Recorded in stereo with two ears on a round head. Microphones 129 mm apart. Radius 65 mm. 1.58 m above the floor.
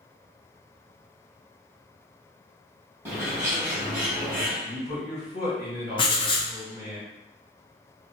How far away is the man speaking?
About 1.6 m.